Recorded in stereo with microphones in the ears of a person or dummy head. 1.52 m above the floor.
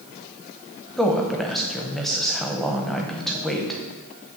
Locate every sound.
1.0 s a woman speaking: 5° left (ahead or behind), 0.8 m